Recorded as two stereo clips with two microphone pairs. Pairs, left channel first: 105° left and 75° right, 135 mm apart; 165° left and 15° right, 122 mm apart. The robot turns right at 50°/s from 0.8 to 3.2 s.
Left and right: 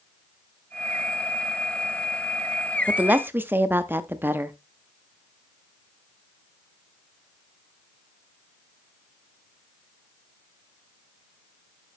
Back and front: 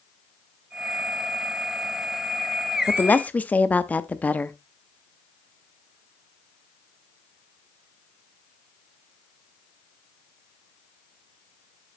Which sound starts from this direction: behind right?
A woman speaking, at 2.9 s.